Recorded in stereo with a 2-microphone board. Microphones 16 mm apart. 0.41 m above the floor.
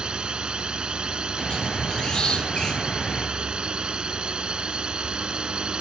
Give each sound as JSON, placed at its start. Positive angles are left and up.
{"t": 0.0, "sound": "a drone", "side_deg": -70}
{"t": 1.4, "sound": "a squeak", "side_deg": 60}